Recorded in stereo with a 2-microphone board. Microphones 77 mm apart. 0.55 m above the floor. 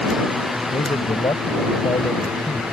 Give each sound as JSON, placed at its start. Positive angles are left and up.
{"t": 0.7, "sound": "a man speaking", "side_deg": 70}